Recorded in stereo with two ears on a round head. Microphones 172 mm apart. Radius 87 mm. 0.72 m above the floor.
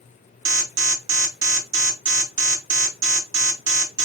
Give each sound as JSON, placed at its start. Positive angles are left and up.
{"t": 0.5, "sound": "an alarm", "side_deg": -65, "distance_m": 0.7}